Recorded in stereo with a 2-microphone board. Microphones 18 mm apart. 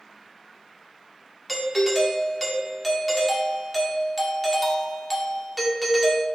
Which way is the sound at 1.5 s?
10° left (ahead or behind).